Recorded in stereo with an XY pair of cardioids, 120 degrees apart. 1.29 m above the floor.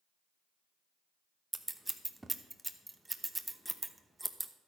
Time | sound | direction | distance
1.5 | scissors | 10° right | 0.9 m